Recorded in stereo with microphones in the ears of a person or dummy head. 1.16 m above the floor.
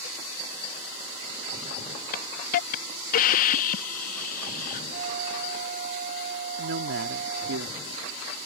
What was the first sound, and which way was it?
A hiss, 45° left (ahead or behind).